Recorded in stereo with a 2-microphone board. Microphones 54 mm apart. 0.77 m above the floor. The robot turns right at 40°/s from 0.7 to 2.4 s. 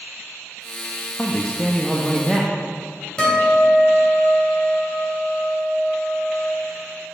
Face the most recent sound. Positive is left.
turn(degrees=15)  # may be behind; listen again after turning